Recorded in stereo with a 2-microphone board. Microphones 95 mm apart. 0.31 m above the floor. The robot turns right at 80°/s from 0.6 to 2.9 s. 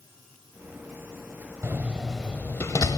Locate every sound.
1.6 s a door slam: 25° right (ahead or behind), 0.8 m; by 3.0 s 40° left (ahead or behind), 0.8 m